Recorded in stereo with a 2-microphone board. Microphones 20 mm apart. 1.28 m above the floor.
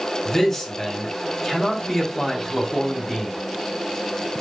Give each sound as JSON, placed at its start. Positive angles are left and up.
{"t": 0.2, "sound": "a man speaking", "side_deg": 15, "distance_m": 3.5}